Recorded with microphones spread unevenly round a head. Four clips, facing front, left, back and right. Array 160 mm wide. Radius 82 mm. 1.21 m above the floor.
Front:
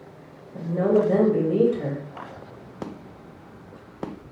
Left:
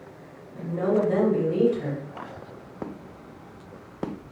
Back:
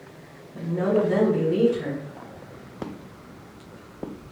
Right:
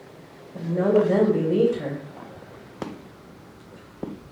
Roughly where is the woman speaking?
Ahead right.